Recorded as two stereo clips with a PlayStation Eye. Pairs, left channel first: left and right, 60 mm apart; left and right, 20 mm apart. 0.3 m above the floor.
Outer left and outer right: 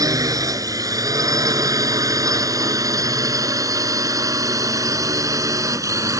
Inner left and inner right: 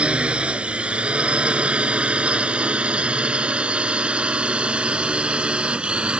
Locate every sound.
0.0 s a drone: 70° right (ahead or behind); by 6.2 s 60° right (ahead or behind)